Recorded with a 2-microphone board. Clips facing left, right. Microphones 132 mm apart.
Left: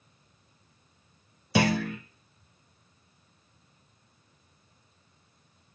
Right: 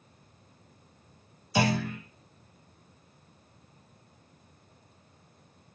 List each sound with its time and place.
1.6 s a clunk: 75° left (ahead or behind), 0.8 m